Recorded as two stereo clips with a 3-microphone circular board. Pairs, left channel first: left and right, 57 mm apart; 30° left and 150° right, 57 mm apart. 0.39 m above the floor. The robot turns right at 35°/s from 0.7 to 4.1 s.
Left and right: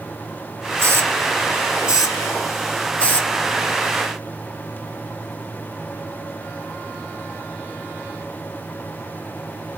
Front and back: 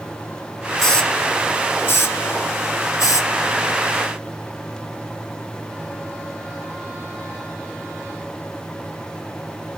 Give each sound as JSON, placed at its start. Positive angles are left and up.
{"t": 0.8, "sound": "a hiss", "azimuth_deg": -55, "distance_m": 1.5}